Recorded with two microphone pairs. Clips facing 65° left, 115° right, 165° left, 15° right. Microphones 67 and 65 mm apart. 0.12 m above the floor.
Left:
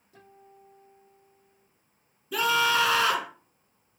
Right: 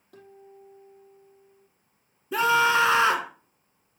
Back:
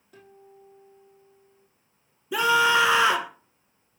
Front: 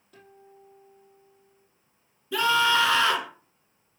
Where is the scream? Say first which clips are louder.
Right 3 dB, back 2 dB; 145° right, 1.2 m.